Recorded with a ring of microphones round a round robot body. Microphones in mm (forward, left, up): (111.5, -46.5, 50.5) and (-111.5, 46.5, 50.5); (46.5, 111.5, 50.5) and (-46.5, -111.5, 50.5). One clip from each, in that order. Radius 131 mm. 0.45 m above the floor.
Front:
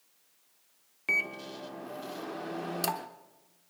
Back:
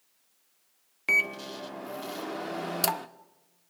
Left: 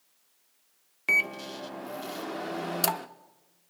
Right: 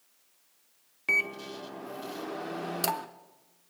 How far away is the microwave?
About 0.6 m.